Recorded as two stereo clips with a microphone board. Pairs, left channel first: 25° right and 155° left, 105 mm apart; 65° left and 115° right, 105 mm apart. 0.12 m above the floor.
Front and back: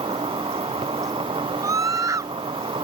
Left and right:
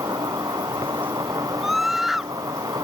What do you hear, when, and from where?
0.0 s an insect: 165° right
1.6 s a scream: 160° left